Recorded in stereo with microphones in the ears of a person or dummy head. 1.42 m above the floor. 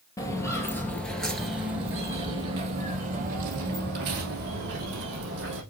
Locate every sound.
0.2 s footsteps: 15° left (ahead or behind), 1.8 m; by 5.6 s 60° right (ahead or behind), 3 m